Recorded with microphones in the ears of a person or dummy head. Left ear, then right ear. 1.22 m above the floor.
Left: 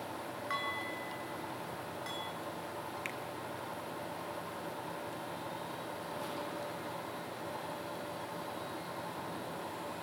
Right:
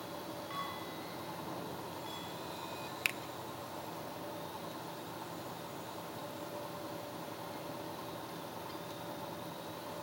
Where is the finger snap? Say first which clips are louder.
Right 9 dB; 30° right (ahead or behind), 0.5 m.